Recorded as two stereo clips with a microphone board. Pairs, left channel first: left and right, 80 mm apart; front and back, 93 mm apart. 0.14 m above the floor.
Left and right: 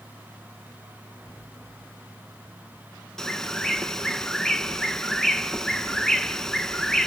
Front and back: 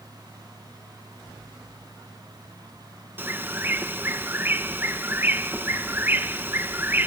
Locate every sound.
3.2 s a bird: 165° left, 1.0 m